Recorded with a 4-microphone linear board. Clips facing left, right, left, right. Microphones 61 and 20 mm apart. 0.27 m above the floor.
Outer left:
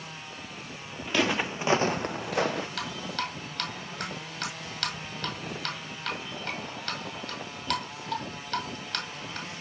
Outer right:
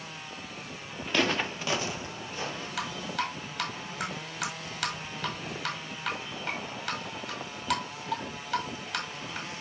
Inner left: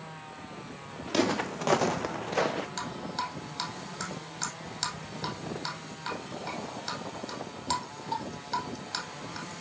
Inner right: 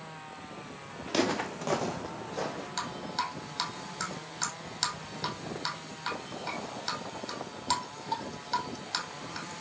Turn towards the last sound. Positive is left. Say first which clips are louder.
# outer right 1 dB, inner right 1 dB
turn(degrees=-10)  # may be behind; listen again after turning